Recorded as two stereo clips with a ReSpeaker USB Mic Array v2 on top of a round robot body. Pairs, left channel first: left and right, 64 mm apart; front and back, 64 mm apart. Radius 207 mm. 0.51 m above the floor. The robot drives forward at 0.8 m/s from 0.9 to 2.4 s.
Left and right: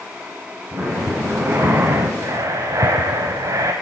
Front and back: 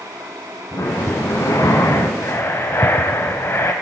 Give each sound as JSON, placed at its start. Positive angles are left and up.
{"t": 0.7, "sound": "breathing", "azimuth_deg": -25, "distance_m": 2.0}